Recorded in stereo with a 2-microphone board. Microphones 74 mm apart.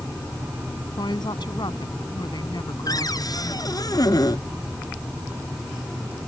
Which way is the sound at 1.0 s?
85° left.